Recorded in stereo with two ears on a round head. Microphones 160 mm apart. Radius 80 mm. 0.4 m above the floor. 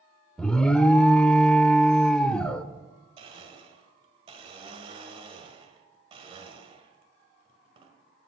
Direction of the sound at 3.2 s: 30° right (ahead or behind).